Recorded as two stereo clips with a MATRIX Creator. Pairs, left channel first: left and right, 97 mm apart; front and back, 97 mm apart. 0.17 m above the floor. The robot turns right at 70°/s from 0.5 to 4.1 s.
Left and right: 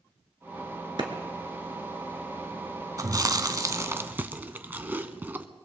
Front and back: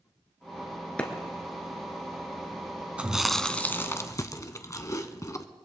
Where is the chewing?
110° right, 0.8 m; by 5.5 s 30° right, 0.8 m.